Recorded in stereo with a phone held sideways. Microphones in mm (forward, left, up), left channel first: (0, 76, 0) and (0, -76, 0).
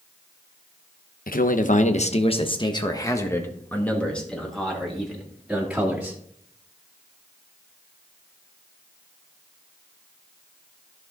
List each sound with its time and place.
1.3 s a man speaking: 70° left (ahead or behind), 1.0 m; by 6.2 s 5° right (ahead or behind), 2.5 m